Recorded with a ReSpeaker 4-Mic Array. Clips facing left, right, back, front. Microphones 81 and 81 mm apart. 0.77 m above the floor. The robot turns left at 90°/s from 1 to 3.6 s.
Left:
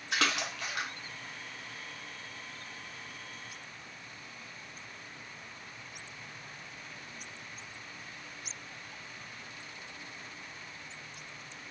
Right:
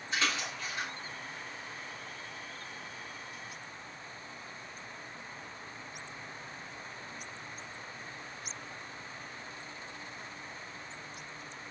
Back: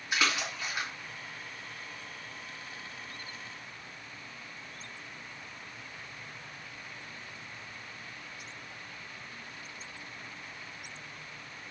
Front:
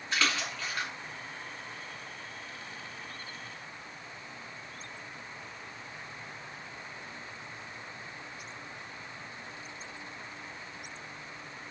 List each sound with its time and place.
0.1 s a splash: 105° left, 0.7 m